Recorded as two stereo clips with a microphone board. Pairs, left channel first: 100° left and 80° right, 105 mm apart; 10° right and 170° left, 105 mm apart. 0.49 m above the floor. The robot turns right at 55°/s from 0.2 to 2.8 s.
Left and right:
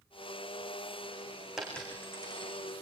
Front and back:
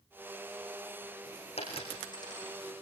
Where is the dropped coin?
5° left, 6.5 m; by 2.6 s 60° left, 6.5 m.